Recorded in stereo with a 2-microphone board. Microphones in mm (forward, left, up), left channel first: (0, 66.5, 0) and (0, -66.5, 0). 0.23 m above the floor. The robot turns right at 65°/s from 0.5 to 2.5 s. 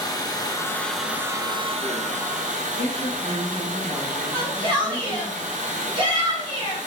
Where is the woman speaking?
45° right (ahead or behind), 2 m.